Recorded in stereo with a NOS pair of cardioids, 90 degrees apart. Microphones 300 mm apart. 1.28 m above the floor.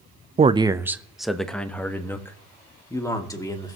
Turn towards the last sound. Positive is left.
turn(degrees=10)